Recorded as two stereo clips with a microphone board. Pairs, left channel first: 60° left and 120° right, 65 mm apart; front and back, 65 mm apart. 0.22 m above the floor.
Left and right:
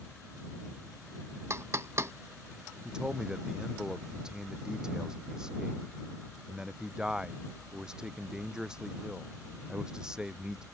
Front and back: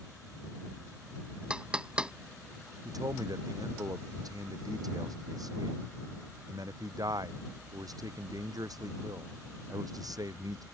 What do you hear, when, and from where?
1.5 s knocking: 115° right
2.9 s a man speaking: 160° left